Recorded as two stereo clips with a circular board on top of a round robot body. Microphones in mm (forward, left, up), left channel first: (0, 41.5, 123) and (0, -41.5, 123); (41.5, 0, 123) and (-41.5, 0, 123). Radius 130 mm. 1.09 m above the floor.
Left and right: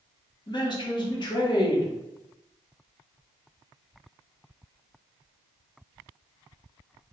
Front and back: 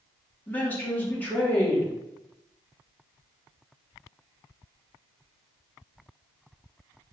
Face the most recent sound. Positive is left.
turn(degrees=70)